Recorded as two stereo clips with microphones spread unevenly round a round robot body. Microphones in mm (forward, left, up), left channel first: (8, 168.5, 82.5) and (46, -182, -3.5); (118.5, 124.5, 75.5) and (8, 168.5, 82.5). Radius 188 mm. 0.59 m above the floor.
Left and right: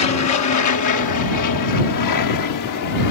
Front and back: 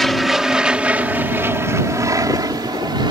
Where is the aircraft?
65° left; by 3.1 s 125° left.